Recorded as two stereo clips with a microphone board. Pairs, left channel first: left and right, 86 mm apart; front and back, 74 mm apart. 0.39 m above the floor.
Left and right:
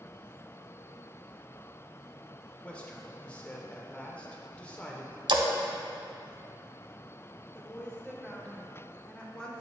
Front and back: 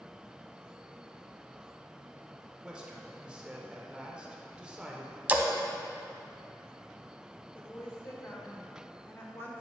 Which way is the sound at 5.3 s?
110° right.